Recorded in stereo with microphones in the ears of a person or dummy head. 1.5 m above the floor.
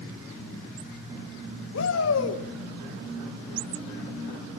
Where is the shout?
75° left (ahead or behind), 1.8 m.